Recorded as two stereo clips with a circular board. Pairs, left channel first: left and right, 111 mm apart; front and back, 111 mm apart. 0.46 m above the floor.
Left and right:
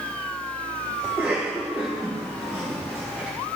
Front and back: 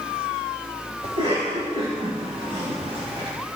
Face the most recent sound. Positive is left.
turn(degrees=-165)